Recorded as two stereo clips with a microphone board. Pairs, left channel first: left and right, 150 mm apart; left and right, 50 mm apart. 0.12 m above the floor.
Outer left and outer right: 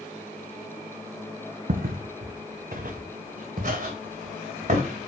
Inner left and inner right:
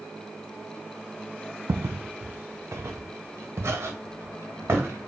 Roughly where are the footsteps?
Right.